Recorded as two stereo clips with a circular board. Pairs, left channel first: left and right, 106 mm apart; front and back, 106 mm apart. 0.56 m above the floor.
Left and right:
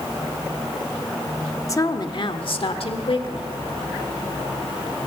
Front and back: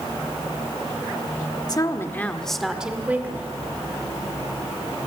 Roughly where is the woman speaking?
Ahead left.